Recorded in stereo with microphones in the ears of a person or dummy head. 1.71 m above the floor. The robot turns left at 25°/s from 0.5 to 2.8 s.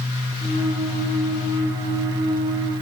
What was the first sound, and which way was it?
Only background noise.